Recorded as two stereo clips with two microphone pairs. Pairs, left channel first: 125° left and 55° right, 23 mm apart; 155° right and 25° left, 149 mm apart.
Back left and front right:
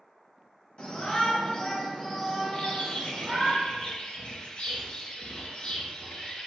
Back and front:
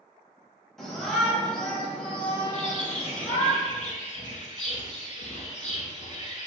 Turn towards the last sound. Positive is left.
turn(degrees=170)